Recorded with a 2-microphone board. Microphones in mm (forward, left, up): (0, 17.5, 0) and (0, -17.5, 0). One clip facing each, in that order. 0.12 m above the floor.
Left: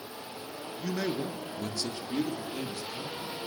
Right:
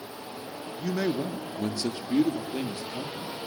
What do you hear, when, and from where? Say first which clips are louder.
0.8 s a man speaking: right 4 dB; 5° right (ahead or behind), 1.2 m; by 3.4 s 30° right (ahead or behind), 3.5 m